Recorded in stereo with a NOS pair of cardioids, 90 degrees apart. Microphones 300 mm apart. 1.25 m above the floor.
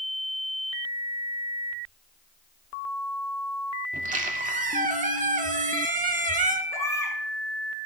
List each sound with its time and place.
3.9 s a squeak: 25° right, 2 m
6.7 s a baby crying: 10° left, 6.5 m